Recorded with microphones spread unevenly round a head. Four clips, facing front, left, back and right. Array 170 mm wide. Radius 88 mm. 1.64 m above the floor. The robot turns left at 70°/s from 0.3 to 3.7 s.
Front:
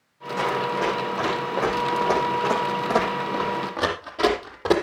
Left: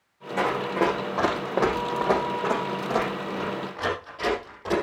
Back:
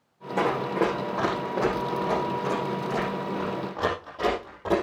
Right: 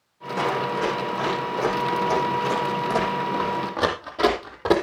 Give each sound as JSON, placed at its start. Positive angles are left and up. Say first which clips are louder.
{"t": 0.4, "sound": "running footsteps", "louder": "even, even", "azimuth_deg": 160, "distance_m": 5.5}